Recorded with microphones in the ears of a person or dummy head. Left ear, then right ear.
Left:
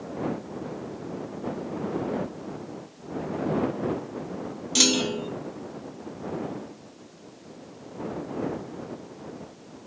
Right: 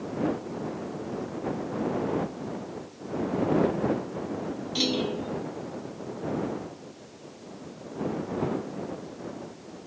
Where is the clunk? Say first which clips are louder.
Left 6 dB; 50° left (ahead or behind).